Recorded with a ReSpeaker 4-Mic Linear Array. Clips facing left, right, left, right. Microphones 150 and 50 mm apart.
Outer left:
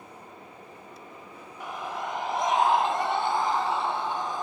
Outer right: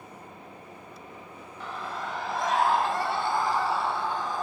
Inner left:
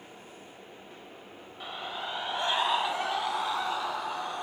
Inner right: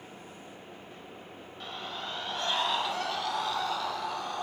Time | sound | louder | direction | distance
1.6 | a scream | outer left 2 dB, inner left 2 dB | 15° left (ahead or behind) | 1.0 m